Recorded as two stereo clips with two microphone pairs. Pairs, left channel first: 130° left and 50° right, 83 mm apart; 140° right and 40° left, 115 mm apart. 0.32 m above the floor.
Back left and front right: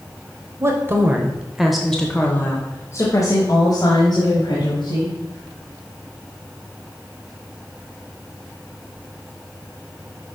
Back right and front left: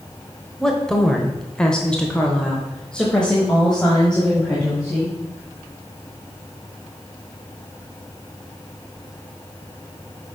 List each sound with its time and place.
0.6 s a woman speaking: 60° right, 1.1 m; by 5.2 s 135° left, 2 m